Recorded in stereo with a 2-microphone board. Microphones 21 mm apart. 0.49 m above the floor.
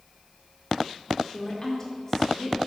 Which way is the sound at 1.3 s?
35° left (ahead or behind).